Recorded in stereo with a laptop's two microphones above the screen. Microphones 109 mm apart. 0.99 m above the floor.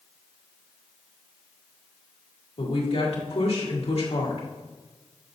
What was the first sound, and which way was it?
A woman speaking, 65° left (ahead or behind).